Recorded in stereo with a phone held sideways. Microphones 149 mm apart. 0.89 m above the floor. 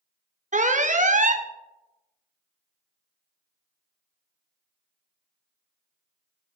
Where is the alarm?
55° right (ahead or behind), 0.7 m.